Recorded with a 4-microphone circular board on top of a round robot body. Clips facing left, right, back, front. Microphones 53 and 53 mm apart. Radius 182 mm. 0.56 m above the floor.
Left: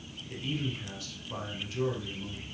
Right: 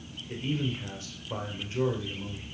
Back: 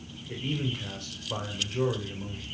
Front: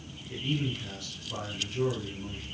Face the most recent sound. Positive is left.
turn(degrees=-145)